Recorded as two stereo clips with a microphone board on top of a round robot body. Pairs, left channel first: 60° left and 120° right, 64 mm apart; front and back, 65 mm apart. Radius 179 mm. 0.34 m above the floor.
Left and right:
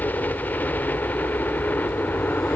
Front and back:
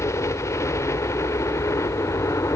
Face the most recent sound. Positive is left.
turn(degrees=5)